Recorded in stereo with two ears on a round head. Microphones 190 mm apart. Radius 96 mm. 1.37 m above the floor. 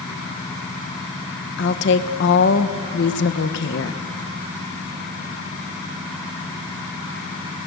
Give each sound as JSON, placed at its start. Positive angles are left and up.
{"t": 1.6, "sound": "a woman speaking", "side_deg": 55, "distance_m": 1.4}